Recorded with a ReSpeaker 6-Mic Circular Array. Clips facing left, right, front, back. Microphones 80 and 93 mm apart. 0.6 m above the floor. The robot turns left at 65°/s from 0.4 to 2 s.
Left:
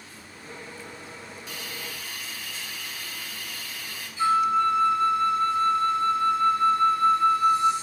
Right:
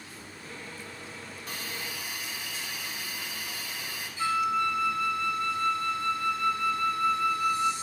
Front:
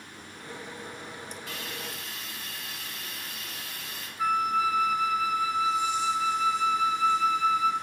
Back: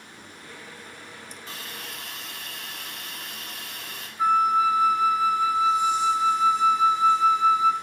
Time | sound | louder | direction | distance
0.1 | a gunshot | even, even | 45° left | 4.5 m
1.5 | a hiss | right 1 dB, even | 120° right | 2.5 m
4.2 | a flute | left 6 dB, back 5 dB | 135° left | 0.8 m